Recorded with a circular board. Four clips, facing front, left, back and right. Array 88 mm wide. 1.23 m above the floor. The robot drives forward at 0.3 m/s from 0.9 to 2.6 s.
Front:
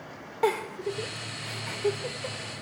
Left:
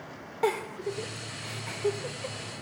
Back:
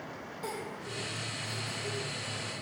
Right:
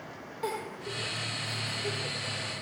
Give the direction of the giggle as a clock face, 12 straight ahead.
11 o'clock.